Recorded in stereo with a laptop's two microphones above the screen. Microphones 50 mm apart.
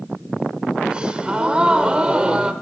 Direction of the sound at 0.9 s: 20° right (ahead or behind).